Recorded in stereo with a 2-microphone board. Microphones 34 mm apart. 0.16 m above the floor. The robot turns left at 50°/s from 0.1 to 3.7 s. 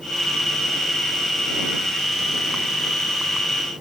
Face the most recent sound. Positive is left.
No sound to turn to.